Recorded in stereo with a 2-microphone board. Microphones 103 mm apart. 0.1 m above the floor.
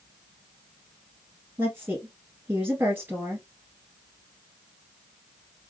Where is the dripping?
I don't hear dripping.